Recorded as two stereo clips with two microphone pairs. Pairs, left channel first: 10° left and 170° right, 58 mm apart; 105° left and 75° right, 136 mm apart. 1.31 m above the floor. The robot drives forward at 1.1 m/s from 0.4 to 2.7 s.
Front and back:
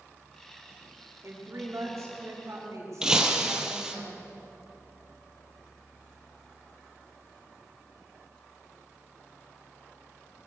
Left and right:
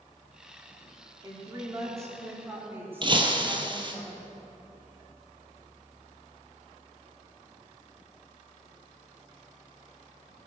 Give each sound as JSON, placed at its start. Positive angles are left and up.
{"t": 1.2, "sound": "a woman speaking", "azimuth_deg": -135, "distance_m": 3.5}
{"t": 3.0, "sound": "breaking glass", "azimuth_deg": -100, "distance_m": 1.7}